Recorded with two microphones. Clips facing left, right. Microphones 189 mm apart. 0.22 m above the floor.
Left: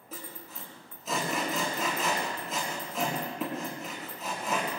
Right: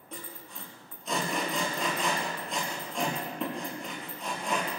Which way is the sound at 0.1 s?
5° left (ahead or behind).